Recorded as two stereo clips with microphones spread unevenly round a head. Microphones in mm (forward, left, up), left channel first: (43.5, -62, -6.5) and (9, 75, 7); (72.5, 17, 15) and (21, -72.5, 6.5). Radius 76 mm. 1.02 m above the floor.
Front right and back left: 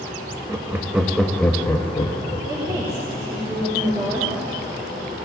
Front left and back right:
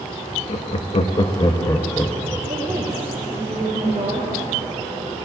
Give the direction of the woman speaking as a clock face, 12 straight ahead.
6 o'clock.